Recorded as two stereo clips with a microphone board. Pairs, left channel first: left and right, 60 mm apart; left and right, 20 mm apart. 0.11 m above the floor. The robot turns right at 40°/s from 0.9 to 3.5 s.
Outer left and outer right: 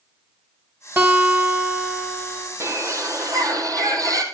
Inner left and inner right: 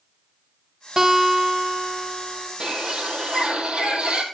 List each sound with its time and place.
1.0 s a guitar: 55° right, 1.6 m; by 2.5 s 10° left, 1.6 m
2.6 s a bird: 130° right, 1.8 m; by 4.2 s 95° right, 1.8 m